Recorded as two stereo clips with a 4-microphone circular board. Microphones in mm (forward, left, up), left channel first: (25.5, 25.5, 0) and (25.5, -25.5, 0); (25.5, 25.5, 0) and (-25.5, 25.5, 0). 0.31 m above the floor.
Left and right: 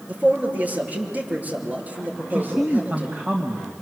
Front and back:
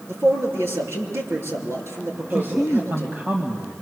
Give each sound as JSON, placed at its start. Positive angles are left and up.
{"t": 0.1, "sound": "a man speaking", "azimuth_deg": -150, "distance_m": 7.0}
{"t": 2.3, "sound": "a man speaking", "azimuth_deg": -130, "distance_m": 2.5}